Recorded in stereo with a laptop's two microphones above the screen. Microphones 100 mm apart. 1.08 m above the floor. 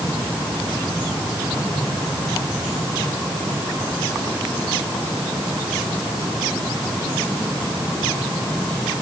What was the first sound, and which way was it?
Only background noise.